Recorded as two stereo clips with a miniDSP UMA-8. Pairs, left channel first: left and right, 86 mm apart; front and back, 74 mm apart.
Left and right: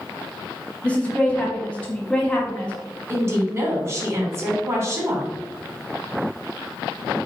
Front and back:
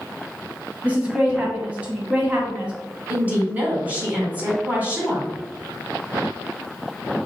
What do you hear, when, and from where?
0.8 s a woman speaking: 145° left, 1.0 m
3.1 s a woman speaking: 125° right, 1.9 m